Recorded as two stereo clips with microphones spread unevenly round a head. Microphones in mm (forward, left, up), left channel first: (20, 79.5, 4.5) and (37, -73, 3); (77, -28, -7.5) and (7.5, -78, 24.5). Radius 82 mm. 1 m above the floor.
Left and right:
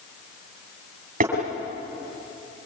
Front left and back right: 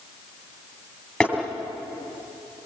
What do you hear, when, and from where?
1.2 s tapping: 50° right, 6.5 m